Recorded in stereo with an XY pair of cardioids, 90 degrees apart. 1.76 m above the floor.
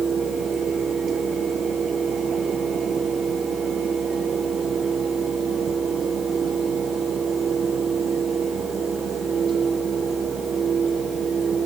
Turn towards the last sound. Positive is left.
turn(degrees=-65)